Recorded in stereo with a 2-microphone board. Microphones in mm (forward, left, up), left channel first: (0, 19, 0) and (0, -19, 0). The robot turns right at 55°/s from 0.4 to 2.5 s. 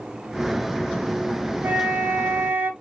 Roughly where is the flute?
Behind right.